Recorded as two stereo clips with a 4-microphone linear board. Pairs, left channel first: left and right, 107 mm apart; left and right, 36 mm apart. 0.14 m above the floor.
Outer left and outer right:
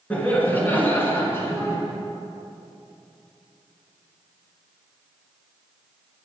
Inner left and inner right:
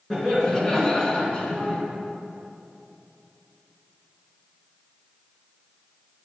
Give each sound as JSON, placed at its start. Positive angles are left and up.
{"t": 0.1, "sound": "laughter", "side_deg": 15, "distance_m": 1.9}